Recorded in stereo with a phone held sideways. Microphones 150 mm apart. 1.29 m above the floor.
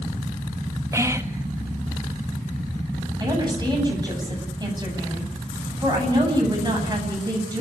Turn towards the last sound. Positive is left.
turn(degrees=-30)  # may be behind; listen again after turning